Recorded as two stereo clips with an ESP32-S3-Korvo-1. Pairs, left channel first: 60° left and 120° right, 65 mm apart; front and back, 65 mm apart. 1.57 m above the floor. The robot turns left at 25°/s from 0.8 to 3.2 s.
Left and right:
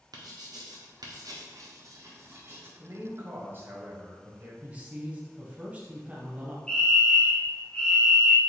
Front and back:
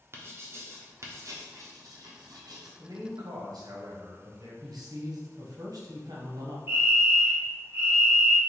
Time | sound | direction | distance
0.1 | writing | 130° right | 0.9 m
2.8 | a man speaking | 165° right | 1.2 m
4.6 | a man speaking | 170° left | 1.2 m
6.7 | a fire alarm | 130° left | 1.3 m